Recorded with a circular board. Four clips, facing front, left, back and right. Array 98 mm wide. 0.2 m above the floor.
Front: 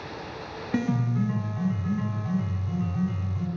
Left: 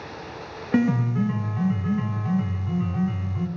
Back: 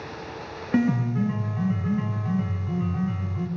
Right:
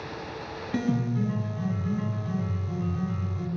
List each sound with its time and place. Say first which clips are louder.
0.7 s a piano: left 6 dB, back 4 dB; 110° left, 0.6 m